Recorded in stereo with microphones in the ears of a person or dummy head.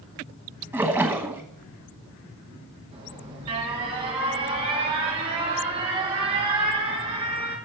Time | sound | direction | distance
0.7 | a splash | 15° right (ahead or behind) | 1.1 m
2.9 | an alarm | 30° right (ahead or behind) | 3.5 m